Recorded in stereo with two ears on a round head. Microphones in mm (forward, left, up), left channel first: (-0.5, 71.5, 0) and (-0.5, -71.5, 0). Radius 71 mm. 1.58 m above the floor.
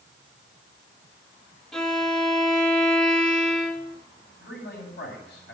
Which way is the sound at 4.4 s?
85° left.